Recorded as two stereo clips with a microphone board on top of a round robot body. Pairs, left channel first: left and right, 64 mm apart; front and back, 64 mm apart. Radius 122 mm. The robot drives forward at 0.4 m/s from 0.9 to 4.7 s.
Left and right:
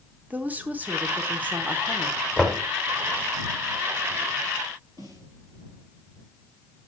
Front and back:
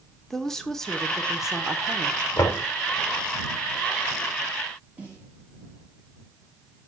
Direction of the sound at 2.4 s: 15° right.